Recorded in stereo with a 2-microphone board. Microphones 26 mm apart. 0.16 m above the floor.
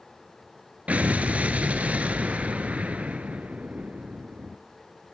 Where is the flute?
No flute in this recording.